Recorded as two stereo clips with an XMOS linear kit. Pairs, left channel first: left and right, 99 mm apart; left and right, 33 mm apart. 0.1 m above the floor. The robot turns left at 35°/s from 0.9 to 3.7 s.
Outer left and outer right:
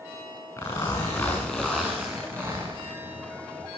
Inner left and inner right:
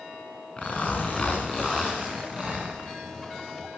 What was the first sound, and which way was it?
A zipper, 35° left.